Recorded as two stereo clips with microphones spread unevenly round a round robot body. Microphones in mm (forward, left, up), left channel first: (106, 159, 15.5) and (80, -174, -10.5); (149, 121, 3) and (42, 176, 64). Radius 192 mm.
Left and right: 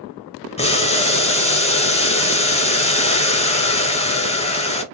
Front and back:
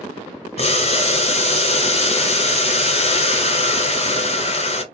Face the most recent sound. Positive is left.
turn(degrees=15)